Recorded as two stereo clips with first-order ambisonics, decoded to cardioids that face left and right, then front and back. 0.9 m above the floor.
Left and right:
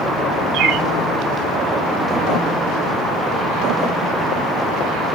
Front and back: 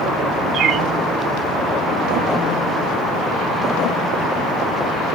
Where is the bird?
130° right, 0.6 m.